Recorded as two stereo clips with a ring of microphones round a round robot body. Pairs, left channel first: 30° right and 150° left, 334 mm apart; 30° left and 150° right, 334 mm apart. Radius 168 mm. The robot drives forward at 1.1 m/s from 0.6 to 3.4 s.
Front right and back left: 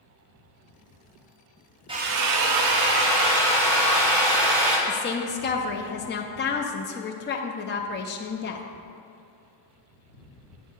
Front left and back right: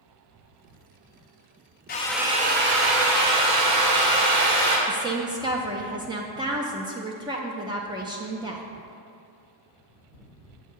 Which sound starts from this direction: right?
A woman speaking, at 4.9 s.